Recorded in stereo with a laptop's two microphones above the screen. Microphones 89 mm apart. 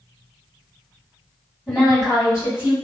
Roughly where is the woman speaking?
Centre.